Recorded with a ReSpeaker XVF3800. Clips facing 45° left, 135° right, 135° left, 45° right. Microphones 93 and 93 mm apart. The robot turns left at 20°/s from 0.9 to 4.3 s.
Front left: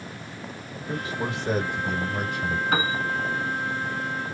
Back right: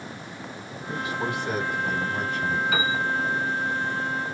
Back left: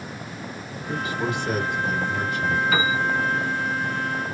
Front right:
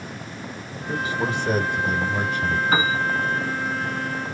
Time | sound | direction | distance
0.9 | a man speaking | 5° left | 1.2 m
2.7 | a piano | 5° left | 0.7 m